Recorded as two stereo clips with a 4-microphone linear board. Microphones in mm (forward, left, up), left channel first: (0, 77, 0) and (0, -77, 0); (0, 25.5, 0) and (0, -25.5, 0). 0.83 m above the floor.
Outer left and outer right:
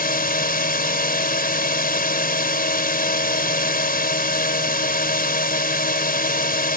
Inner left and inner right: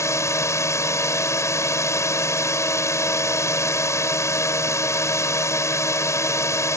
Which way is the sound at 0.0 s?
70° left (ahead or behind).